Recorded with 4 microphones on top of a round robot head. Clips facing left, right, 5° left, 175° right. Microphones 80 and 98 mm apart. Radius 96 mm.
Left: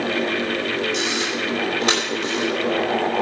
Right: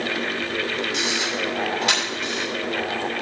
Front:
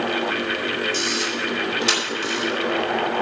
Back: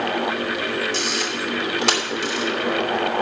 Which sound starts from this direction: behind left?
A camera shutter, at 0.9 s.